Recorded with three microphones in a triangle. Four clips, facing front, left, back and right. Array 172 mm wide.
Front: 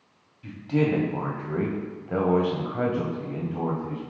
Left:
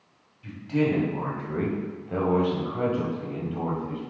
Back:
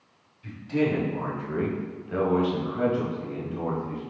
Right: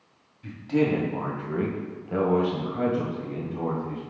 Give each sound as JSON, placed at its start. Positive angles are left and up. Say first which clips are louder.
{"t": 0.4, "sound": "a man speaking", "louder": "right 1 dB, front 1 dB", "azimuth_deg": -35, "distance_m": 2.0}